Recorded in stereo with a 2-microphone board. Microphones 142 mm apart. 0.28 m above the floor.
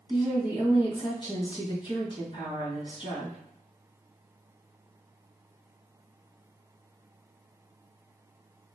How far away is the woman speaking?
About 1.8 m.